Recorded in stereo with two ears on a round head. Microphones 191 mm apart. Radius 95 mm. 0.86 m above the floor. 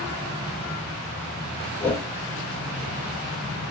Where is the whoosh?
10° left (ahead or behind), 1.1 m.